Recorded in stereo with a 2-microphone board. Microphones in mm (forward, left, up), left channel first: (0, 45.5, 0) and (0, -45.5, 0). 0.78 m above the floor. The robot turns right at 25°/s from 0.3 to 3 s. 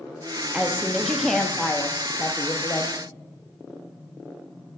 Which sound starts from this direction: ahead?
A woman speaking, at 0.5 s.